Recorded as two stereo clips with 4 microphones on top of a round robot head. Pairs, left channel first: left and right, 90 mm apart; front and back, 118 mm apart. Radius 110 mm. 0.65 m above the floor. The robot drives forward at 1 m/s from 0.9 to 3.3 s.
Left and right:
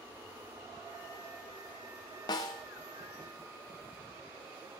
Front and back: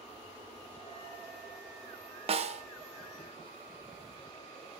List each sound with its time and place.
2.3 s a snare drum: 145° left, 1.1 m; by 2.6 s 155° left, 1.4 m